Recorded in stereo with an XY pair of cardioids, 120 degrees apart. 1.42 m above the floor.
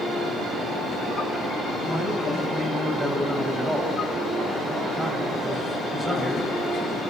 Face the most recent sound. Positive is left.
turn(degrees=-10)